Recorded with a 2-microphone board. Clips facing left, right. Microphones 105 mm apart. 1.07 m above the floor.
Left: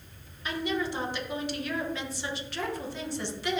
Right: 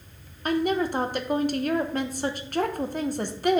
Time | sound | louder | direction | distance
0.5 | a woman speaking | right 7 dB | 50° right (ahead or behind) | 0.8 m